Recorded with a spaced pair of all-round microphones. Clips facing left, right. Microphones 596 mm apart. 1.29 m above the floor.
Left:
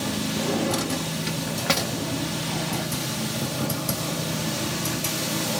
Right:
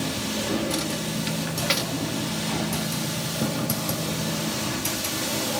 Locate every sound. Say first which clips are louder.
0.4 s a drawer: left 1 dB; 70° left (ahead or behind), 1.3 m